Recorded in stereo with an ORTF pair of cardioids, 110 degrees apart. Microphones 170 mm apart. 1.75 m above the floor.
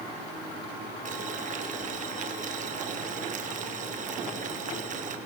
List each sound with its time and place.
1.1 s boiling: 50° right, 3.5 m